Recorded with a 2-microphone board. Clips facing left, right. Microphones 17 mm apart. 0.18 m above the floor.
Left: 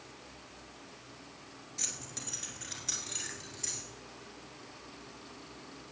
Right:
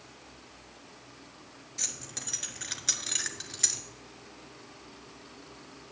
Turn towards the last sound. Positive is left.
turn(degrees=-60)  # may be behind; listen again after turning